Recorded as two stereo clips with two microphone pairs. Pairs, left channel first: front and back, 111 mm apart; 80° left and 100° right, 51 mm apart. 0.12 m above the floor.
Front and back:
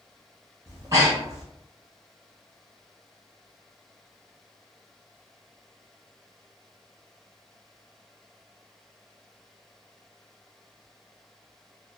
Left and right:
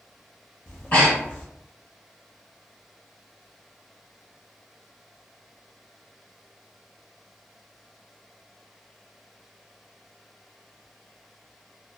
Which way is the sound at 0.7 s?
130° left.